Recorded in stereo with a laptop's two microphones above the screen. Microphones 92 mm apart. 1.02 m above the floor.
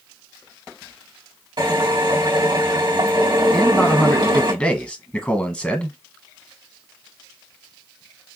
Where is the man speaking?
20° left (ahead or behind), 1.0 m.